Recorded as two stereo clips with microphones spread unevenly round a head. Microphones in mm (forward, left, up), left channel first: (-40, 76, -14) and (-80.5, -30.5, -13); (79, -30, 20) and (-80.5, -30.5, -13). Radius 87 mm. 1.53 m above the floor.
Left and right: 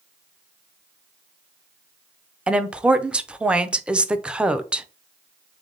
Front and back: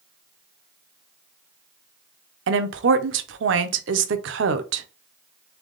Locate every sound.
2.5 s a woman speaking: 170° left, 0.6 m